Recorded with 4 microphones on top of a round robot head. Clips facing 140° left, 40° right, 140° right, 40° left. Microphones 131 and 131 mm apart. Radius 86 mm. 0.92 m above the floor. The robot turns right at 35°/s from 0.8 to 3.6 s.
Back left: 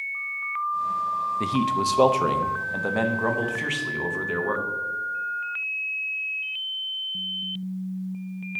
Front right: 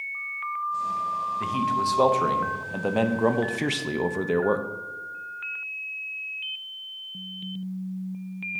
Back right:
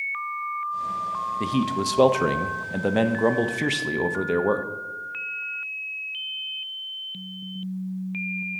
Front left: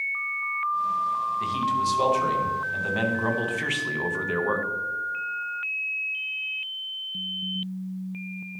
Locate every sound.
1.4 s a man speaking: 165° right, 0.7 m; by 4.7 s 90° right, 0.7 m